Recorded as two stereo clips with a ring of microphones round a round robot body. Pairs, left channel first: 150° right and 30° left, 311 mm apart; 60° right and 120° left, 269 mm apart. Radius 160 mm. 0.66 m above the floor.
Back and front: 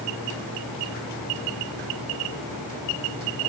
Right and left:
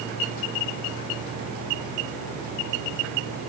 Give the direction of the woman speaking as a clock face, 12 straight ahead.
No woman speaking in this recording.